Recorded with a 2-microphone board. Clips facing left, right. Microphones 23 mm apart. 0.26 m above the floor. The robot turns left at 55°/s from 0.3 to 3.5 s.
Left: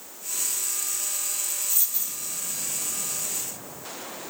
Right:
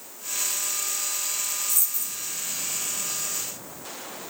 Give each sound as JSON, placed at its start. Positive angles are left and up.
{"t": 1.7, "sound": "a dropped coin", "side_deg": 25, "distance_m": 1.2}